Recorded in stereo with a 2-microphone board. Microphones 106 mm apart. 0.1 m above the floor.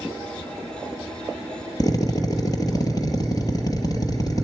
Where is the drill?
40° left (ahead or behind), 2 m.